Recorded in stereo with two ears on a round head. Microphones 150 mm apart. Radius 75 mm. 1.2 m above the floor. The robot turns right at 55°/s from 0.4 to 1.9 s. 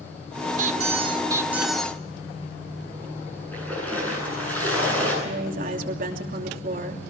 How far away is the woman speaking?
About 3 m.